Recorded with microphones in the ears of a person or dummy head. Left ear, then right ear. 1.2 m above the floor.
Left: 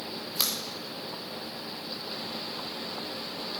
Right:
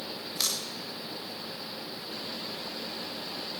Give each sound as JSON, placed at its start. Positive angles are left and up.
{"t": 0.4, "sound": "scissors", "side_deg": 30, "distance_m": 1.9}